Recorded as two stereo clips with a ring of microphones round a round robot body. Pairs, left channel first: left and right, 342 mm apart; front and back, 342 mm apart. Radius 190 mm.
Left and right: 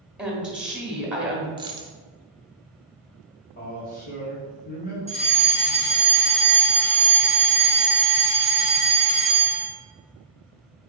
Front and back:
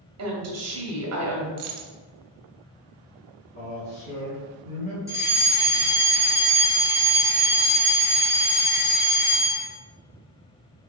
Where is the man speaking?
40° left, 1.7 m.